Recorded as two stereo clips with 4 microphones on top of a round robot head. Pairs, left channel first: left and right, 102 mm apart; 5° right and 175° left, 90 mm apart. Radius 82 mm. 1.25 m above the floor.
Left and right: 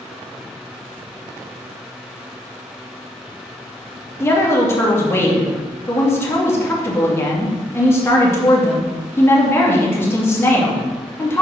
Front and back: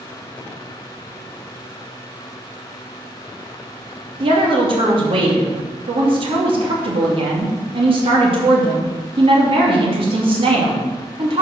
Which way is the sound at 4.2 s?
155° left.